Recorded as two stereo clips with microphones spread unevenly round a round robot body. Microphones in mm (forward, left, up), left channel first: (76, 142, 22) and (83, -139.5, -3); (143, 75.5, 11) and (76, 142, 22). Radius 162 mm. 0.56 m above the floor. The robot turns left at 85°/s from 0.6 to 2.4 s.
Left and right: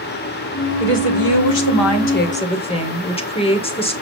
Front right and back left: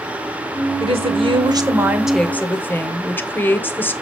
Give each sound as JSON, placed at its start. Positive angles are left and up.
{"t": 0.8, "sound": "a woman speaking", "azimuth_deg": 155, "distance_m": 2.5}